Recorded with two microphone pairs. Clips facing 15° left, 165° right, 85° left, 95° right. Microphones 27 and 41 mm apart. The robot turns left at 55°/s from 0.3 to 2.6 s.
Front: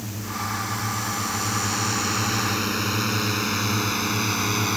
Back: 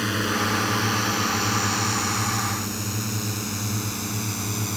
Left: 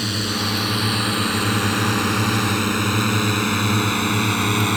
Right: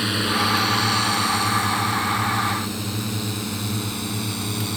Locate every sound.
0.0 s a drone: 165° right; by 4.8 s 65° left